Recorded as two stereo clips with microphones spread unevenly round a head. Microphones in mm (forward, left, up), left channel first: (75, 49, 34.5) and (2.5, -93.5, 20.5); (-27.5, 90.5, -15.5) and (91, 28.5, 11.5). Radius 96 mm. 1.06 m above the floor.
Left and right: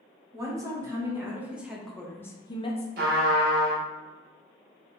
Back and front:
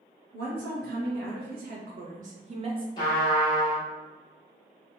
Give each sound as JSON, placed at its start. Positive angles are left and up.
{"t": 0.3, "sound": "a woman speaking", "azimuth_deg": -50, "distance_m": 1.8}
{"t": 3.0, "sound": "a trumpet", "azimuth_deg": -140, "distance_m": 0.8}